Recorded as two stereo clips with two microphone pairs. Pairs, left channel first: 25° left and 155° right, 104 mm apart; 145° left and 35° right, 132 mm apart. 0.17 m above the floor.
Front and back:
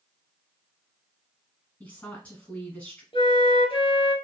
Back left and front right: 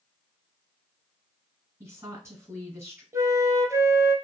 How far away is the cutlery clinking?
No cutlery clinking in this recording.